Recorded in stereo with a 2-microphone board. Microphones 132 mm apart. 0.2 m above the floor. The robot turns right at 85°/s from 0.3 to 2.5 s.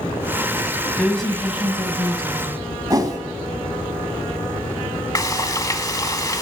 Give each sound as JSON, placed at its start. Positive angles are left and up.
{"t": 1.0, "sound": "a woman speaking", "side_deg": 10, "distance_m": 1.0}
{"t": 2.9, "sound": "a whoosh", "side_deg": -30, "distance_m": 1.2}
{"t": 5.2, "sound": "frying", "side_deg": 25, "distance_m": 0.7}